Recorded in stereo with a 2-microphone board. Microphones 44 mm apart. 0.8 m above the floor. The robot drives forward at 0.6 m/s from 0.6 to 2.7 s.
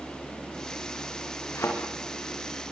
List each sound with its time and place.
1.6 s a thud: 75° left (ahead or behind), 7 m